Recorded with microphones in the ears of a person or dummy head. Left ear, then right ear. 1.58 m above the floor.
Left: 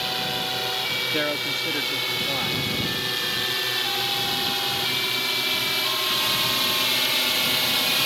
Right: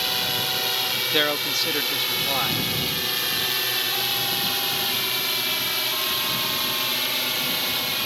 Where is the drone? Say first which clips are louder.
Right 2 dB; 15° right (ahead or behind); by 8.1 s 10° left (ahead or behind).